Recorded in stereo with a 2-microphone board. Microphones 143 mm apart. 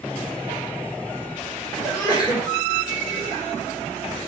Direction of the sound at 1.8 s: 30° left (ahead or behind).